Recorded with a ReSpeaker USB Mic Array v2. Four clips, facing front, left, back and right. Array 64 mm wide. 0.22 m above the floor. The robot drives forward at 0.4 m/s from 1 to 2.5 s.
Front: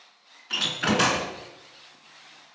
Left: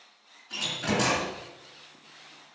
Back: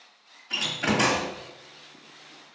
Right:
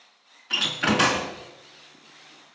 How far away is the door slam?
About 1.7 m.